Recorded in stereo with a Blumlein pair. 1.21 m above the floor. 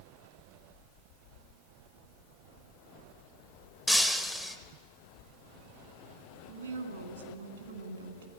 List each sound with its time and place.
3.9 s breaking glass: straight ahead, 0.8 m
6.5 s a woman speaking: 70° right, 1.9 m